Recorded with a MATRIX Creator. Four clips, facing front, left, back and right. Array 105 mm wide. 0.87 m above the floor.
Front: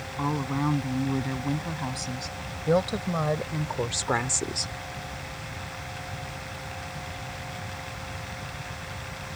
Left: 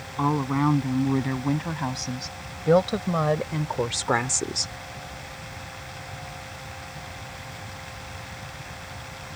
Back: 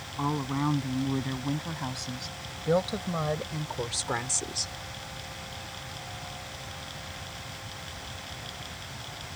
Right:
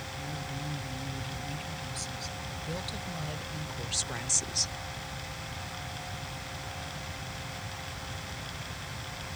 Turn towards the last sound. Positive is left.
turn(degrees=60)